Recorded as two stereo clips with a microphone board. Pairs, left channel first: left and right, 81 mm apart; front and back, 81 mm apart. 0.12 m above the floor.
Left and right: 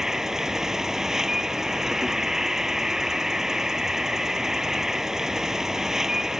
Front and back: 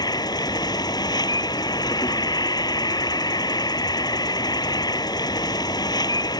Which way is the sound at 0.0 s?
5° right.